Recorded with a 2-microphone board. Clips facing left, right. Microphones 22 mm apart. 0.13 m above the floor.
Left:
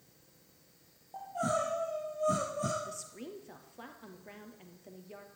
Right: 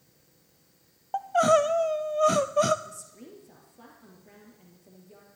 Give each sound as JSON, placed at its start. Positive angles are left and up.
{"t": 1.1, "sound": "crying", "side_deg": -75, "distance_m": 0.8}
{"t": 2.9, "sound": "a woman speaking", "side_deg": 30, "distance_m": 2.5}